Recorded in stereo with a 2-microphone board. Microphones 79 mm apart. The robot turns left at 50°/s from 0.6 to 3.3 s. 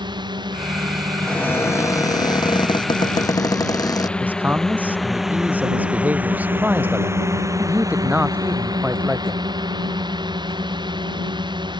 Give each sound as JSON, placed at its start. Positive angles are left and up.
{"t": 0.0, "sound": "a drone", "side_deg": -85}
{"t": 1.2, "sound": "a cupboard door", "azimuth_deg": 165}
{"t": 4.2, "sound": "a man speaking", "side_deg": -20}